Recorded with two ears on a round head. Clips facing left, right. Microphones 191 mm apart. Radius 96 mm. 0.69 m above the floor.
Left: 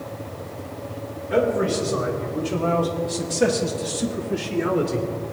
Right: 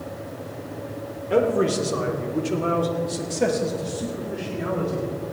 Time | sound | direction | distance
1.3 | a man speaking | 45° right (ahead or behind) | 1.9 m